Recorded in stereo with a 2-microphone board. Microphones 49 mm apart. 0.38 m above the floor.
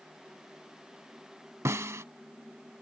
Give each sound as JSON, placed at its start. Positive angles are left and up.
{"t": 1.6, "sound": "a snare drum", "side_deg": -70}